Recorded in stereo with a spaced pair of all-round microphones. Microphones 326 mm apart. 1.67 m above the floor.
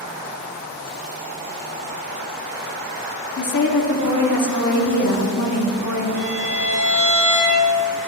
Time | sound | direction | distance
3.4 | a woman speaking | 65° left (ahead or behind) | 1.0 m
6.2 | a violin | 45° left (ahead or behind) | 1.1 m